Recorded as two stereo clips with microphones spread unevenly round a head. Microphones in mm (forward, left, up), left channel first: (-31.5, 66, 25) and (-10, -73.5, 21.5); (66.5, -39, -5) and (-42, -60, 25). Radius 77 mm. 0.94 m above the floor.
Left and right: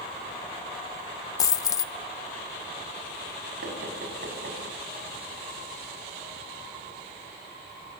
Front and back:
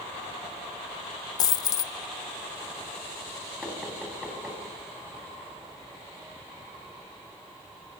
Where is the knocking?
90° right, 6 m.